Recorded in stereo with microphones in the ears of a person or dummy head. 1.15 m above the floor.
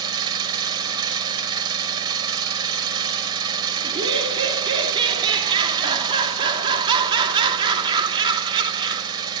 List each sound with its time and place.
0.0 s an engine running: 20° right (ahead or behind), 4 m
3.8 s laughter: 25° right (ahead or behind), 3 m